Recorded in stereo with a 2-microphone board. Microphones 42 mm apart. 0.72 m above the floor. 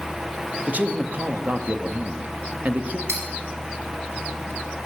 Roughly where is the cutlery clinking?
Right.